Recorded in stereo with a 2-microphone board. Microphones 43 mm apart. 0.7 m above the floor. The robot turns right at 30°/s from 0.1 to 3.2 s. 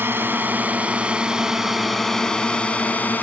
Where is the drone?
50° right (ahead or behind); by 3.2 s 40° left (ahead or behind).